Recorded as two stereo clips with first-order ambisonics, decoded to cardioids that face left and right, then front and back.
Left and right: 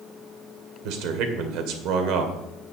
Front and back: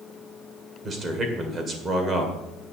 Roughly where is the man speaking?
Right.